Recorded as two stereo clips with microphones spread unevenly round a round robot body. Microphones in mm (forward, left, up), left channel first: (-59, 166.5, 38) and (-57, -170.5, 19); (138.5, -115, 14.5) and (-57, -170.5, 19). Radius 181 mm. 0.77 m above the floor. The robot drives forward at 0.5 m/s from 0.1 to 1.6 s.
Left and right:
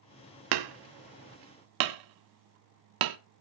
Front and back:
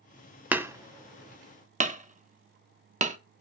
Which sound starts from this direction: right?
Hammering, at 0.5 s.